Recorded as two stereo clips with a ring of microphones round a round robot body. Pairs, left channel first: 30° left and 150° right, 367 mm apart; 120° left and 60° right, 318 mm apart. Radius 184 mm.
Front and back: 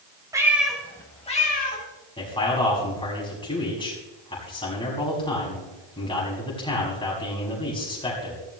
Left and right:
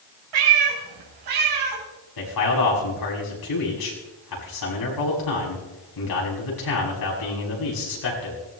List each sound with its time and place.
0.3 s a cat meowing: 70° right, 3 m; by 1.8 s 35° right, 3.5 m
2.2 s a man speaking: 105° left, 6.5 m